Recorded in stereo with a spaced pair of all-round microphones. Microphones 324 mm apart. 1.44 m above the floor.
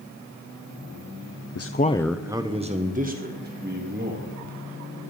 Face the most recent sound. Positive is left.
turn(degrees=-35)  # may be behind; listen again after turning